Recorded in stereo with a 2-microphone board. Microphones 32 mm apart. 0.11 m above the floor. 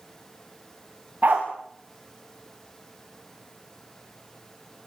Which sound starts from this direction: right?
A dog barking, at 1.2 s.